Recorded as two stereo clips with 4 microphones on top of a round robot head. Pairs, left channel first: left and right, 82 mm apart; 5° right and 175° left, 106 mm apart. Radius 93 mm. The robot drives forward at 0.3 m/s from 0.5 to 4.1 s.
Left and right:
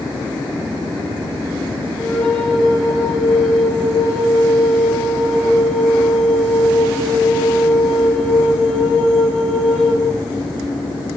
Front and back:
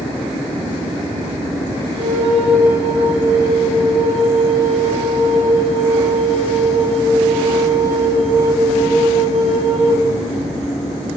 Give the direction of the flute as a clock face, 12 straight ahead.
6 o'clock.